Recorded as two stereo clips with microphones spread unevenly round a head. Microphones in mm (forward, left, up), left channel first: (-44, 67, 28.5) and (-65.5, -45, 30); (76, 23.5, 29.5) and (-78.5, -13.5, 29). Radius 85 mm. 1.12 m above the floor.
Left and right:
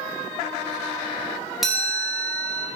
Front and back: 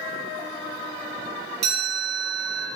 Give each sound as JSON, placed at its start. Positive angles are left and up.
{"t": 1.6, "sound": "a chime", "azimuth_deg": 170, "distance_m": 1.2}